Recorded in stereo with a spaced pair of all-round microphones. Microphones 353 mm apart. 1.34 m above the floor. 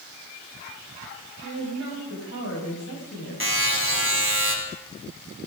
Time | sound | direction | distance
1.4 | a woman speaking | 45° left (ahead or behind) | 7.5 m
3.4 | a buzzer | 35° right (ahead or behind) | 4 m